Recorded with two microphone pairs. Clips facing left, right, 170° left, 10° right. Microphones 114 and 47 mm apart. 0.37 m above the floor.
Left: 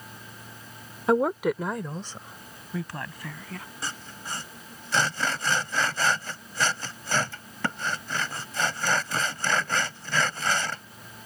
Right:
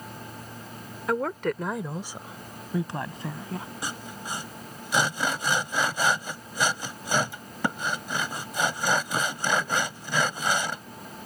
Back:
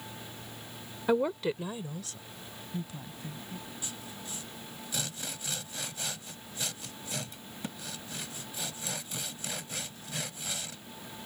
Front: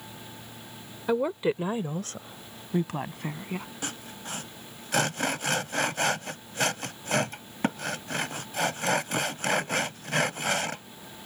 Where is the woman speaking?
85° left; by 3.7 s 30° right.